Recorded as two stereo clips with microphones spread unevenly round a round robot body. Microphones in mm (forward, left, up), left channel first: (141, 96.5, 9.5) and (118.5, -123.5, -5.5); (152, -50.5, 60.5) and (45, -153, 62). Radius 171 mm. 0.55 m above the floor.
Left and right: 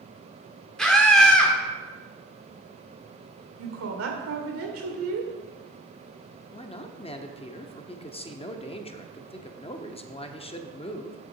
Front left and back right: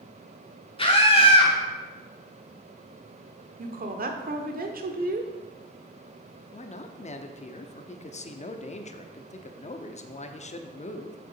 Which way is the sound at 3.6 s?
120° right.